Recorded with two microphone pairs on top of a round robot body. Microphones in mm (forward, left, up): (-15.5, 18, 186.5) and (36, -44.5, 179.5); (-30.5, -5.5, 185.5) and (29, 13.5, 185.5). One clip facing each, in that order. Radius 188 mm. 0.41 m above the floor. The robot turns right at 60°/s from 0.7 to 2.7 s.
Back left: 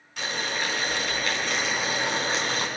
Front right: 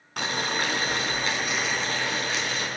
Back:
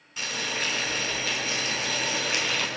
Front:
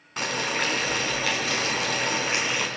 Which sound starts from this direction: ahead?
Boiling, at 0.2 s.